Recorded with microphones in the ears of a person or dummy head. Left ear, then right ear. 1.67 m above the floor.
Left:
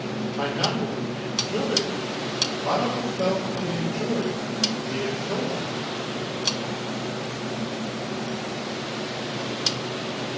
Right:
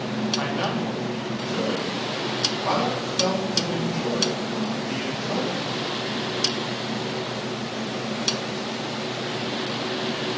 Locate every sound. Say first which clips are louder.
0.4 s a man speaking: left 1 dB; 85° right, 4 m